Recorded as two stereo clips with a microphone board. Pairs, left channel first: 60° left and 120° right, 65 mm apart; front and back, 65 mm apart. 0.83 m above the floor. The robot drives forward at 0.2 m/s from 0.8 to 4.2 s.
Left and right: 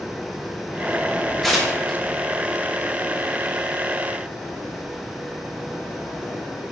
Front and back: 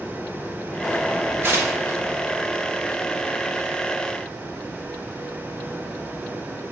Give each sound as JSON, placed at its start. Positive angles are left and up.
{"t": 1.4, "sound": "tearing paper", "azimuth_deg": 150, "distance_m": 0.8}